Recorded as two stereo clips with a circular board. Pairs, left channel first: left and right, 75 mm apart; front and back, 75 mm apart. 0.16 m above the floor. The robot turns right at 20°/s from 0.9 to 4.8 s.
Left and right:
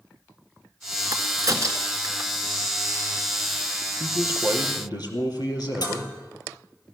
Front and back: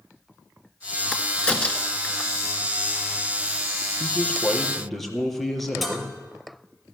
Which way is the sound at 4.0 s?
70° left.